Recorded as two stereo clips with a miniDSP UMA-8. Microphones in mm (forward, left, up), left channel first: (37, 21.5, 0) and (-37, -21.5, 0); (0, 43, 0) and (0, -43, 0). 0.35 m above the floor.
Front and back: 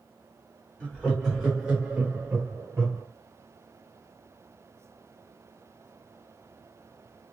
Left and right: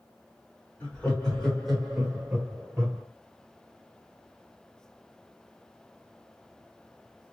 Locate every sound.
0.8 s laughter: 70° left, 1.4 m; by 3.0 s 140° right, 1.6 m